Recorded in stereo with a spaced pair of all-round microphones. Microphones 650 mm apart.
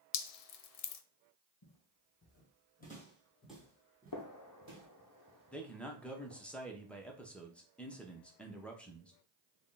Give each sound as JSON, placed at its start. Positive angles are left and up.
{"t": 0.1, "sound": "dripping", "side_deg": 65, "distance_m": 0.5}
{"t": 1.6, "sound": "footsteps", "side_deg": 30, "distance_m": 2.0}
{"t": 4.1, "sound": "a gunshot", "side_deg": 30, "distance_m": 0.7}
{"t": 5.5, "sound": "a man speaking", "side_deg": 0, "distance_m": 0.8}